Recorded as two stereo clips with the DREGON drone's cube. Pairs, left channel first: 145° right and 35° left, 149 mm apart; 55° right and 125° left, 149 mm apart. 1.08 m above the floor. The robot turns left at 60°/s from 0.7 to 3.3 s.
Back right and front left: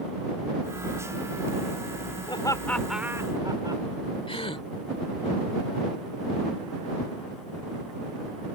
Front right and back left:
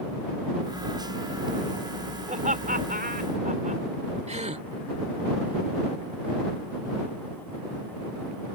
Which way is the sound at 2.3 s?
160° left.